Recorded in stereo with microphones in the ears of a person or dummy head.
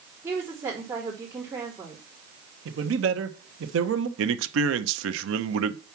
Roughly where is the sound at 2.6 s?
Right.